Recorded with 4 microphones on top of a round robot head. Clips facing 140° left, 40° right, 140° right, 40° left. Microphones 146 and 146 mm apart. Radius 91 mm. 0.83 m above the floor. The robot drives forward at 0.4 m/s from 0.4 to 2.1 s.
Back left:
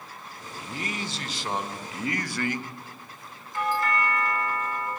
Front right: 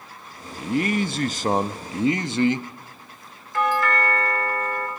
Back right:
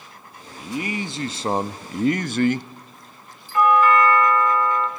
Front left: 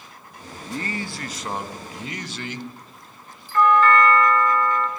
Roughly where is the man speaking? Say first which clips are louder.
Front right 12 dB, back right 3 dB; ahead right.